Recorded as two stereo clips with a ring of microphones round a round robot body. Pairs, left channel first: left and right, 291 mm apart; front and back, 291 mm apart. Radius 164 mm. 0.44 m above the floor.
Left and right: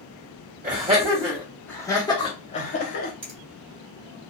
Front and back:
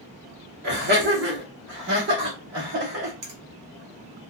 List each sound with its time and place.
0.6 s laughter: 140° right, 1.1 m; by 3.1 s 140° left, 1.5 m
3.2 s a finger snap: 140° right, 1.9 m